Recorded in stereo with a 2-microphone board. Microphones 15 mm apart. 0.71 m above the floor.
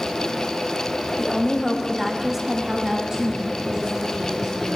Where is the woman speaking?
20° left (ahead or behind), 1.0 m; by 4.8 s 60° right (ahead or behind), 1.7 m.